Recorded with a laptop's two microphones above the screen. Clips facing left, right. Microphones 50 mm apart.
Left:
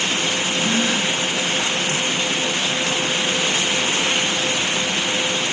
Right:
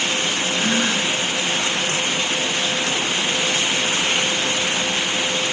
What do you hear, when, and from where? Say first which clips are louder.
0.5 s a gasp: right 1 dB; 40° right (ahead or behind), 7.5 m